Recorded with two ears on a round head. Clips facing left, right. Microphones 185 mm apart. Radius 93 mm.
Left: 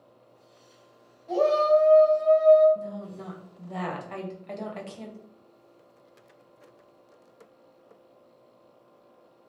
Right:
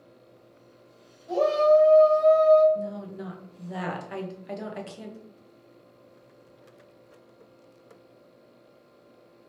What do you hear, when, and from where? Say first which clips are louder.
1.3 s a shout: right 1 dB; 15° right (ahead or behind), 1.0 m; by 2.6 s 75° right (ahead or behind), 0.9 m
2.8 s a woman speaking: right 3 dB; 10° right (ahead or behind), 0.7 m